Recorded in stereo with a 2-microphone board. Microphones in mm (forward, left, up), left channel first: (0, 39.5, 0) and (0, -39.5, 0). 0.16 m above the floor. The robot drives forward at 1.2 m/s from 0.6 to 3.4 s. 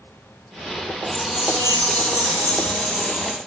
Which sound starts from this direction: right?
A chime, at 1.1 s.